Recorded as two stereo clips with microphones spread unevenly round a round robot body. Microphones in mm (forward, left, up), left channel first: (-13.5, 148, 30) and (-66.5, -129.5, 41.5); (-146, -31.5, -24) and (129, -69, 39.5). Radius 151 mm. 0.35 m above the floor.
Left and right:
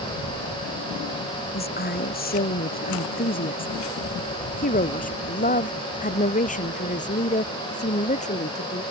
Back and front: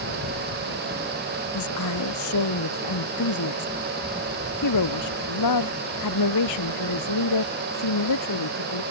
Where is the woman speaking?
135° left; by 8.8 s 145° left.